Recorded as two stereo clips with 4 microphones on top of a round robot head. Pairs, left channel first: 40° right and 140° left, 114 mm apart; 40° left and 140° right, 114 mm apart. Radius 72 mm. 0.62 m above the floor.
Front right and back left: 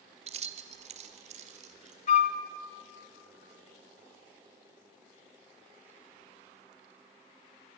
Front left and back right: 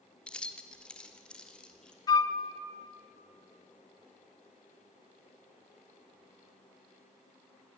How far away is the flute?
About 0.6 m.